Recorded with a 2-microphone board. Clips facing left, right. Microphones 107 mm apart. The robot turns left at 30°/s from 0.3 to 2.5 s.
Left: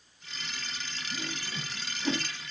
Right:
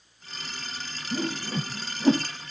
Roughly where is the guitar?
No guitar in this recording.